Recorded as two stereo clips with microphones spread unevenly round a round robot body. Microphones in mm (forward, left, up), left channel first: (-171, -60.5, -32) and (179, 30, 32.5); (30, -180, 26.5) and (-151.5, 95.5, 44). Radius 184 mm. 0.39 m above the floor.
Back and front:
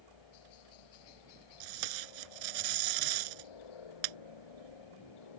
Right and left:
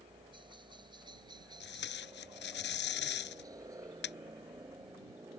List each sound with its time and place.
0.0 s a helicopter: 160° right; by 5.4 s 155° right
1.6 s tape being pulled: 5° left